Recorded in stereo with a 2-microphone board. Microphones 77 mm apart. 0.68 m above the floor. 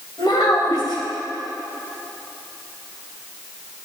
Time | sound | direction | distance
0.2 | a child speaking | 75° left (ahead or behind) | 2.5 m